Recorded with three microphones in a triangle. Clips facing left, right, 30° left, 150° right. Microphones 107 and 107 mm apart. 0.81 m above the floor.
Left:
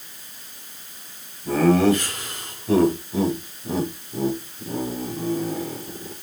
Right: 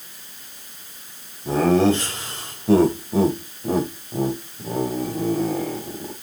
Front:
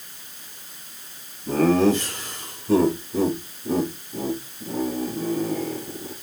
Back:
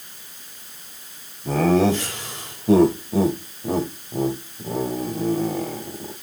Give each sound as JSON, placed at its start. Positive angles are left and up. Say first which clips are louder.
{"t": 1.4, "sound": "laughter", "louder": "even, even", "azimuth_deg": -160, "distance_m": 4.0}